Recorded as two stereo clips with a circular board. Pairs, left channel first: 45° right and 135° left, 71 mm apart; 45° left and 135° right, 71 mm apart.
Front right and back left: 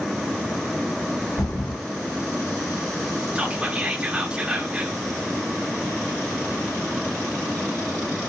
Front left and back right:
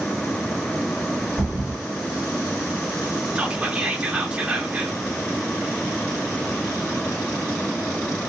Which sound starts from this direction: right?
A thud, at 1.4 s.